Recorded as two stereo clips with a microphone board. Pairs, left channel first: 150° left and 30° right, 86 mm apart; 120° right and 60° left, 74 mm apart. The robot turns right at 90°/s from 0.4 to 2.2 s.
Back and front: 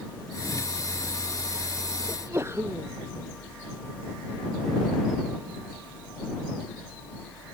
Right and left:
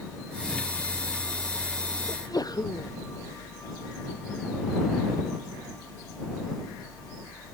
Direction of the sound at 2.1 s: 100° right.